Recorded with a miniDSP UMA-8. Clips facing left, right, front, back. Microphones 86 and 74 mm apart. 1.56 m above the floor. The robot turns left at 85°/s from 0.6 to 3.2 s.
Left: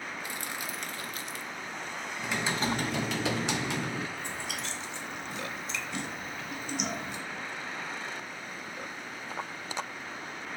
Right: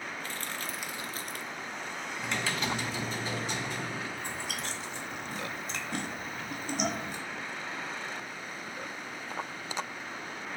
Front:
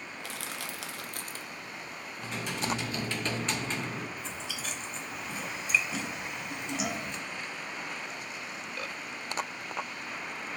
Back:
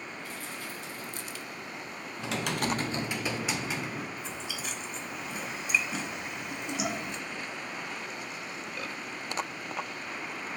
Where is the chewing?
105° right, 1.3 m.